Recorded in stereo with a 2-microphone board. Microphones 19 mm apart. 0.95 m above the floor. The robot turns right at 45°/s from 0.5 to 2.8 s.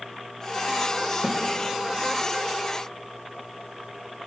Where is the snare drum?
20° right (ahead or behind), 1.3 m; by 1.4 s 10° right (ahead or behind), 1.3 m.